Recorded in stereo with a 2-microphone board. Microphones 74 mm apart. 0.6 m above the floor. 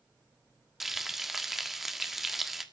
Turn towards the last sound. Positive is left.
turn(degrees=-5)  # may be behind; listen again after turning